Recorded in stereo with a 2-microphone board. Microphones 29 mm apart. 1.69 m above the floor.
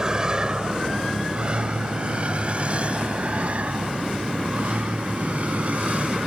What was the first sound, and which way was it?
A vehicle, 25° right (ahead or behind).